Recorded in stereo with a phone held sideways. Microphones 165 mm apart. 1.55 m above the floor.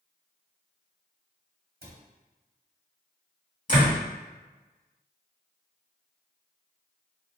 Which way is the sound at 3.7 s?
50° left (ahead or behind).